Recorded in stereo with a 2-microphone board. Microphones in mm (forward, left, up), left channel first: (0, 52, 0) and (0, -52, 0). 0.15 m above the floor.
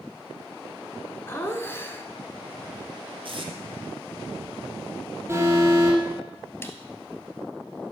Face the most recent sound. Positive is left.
turn(degrees=25)  # may be behind; listen again after turning